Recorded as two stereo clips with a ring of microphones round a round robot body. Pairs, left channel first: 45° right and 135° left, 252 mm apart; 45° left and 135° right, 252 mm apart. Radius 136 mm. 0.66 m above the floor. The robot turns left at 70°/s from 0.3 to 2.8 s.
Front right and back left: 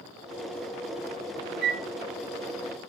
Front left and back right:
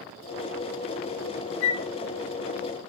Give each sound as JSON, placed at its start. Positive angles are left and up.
{"t": 1.6, "sound": "a flute", "azimuth_deg": 85, "distance_m": 2.0}